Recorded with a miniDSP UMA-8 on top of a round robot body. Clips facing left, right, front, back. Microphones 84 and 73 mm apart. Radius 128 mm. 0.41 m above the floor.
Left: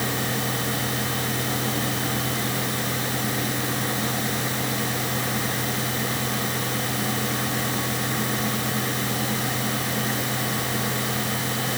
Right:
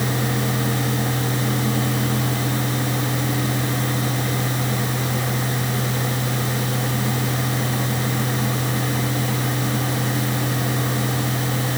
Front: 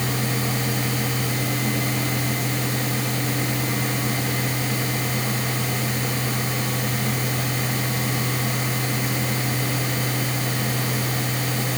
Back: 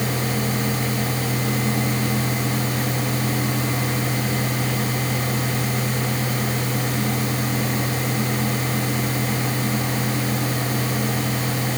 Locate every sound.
Only background noise.